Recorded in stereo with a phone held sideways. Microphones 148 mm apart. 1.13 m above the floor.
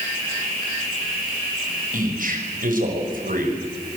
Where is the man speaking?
65° right (ahead or behind), 6 m.